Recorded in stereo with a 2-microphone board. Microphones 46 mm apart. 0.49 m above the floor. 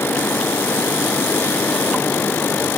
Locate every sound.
Only background noise.